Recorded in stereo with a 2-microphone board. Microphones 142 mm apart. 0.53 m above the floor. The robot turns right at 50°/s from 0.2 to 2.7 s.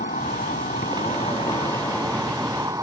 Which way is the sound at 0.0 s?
80° left.